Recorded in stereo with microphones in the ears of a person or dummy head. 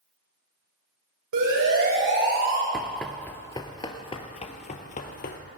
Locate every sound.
1.3 s a siren: 65° right (ahead or behind), 7.5 m; by 2.6 s 60° right (ahead or behind), 7 m
2.7 s running footsteps: centre (ahead or behind), 1.7 m; by 5.4 s 45° left (ahead or behind), 2.5 m